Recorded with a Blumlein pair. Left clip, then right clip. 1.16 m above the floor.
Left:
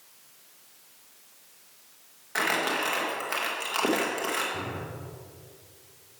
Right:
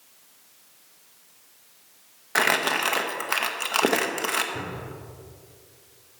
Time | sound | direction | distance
2.4 | crumpling | 70° right | 1.0 m
4.5 | a cupboard door | 5° right | 3 m